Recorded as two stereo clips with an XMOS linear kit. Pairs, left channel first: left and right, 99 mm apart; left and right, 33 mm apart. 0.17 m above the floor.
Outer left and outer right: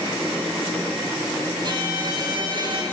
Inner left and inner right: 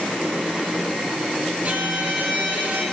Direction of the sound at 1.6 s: 55° right (ahead or behind).